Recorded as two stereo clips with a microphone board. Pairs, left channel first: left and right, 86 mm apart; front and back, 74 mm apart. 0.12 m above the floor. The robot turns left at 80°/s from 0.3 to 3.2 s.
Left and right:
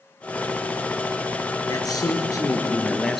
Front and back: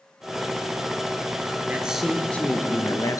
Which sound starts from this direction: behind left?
A man speaking, at 1.7 s.